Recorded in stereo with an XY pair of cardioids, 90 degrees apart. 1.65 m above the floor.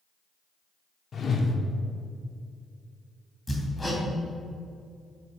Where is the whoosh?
50° left, 1.1 m.